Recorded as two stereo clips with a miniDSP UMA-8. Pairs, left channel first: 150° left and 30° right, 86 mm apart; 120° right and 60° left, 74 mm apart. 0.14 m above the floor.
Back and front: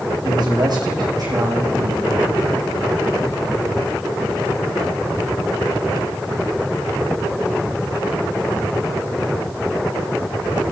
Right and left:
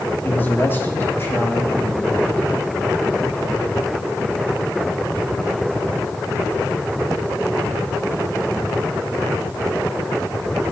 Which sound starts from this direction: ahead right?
A man speaking, at 0.2 s.